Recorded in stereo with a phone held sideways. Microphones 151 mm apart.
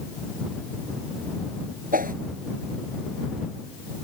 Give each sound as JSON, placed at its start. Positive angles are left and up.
{"t": 1.9, "sound": "a whoosh", "side_deg": -75}